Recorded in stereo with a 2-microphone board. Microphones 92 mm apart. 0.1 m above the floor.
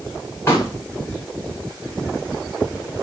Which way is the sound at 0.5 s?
30° left (ahead or behind).